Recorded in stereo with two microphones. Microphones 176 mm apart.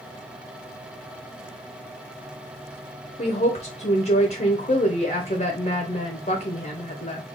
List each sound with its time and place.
3.2 s a woman speaking: 50° left (ahead or behind), 0.7 m